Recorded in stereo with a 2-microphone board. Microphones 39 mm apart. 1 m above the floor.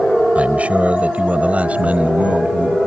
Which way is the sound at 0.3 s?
35° right (ahead or behind).